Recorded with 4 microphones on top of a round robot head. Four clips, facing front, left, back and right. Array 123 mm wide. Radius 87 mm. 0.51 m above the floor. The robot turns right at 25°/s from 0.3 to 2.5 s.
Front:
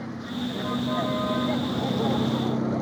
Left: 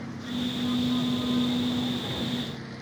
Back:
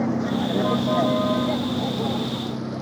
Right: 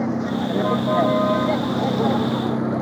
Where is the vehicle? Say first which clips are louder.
Right 10 dB, back 9 dB; 130° right; by 2.8 s 75° right.